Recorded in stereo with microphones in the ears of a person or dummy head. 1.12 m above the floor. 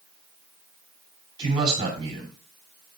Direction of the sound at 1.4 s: 30° right (ahead or behind).